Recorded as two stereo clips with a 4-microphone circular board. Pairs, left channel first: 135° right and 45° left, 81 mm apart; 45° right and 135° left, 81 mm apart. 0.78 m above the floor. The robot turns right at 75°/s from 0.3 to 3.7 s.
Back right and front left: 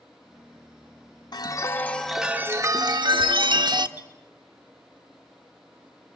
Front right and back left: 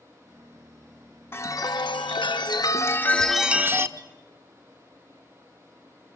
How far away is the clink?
About 1.6 m.